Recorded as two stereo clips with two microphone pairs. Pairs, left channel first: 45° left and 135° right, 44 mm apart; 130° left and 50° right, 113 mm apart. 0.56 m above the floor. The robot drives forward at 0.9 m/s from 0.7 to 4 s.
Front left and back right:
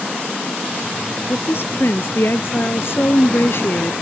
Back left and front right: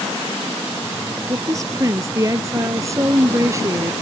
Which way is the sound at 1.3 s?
10° left.